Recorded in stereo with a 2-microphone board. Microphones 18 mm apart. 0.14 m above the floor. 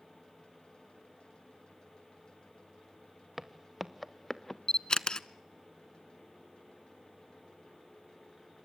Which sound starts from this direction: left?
A camera shutter, at 4.7 s.